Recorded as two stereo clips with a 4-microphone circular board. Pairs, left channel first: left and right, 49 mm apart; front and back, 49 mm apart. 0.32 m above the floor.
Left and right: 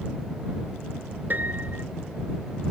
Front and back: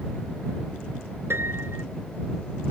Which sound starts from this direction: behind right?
A piano, at 1.3 s.